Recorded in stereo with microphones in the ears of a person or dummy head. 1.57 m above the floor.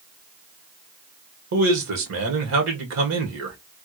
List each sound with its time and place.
1.5 s a man speaking: 75° right (ahead or behind), 1.5 m